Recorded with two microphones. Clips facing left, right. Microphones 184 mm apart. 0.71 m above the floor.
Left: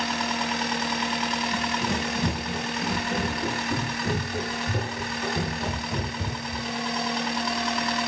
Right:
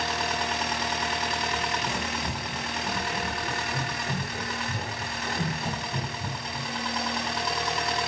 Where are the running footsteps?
60° left (ahead or behind), 8 m; by 6.7 s 70° left (ahead or behind), 10 m.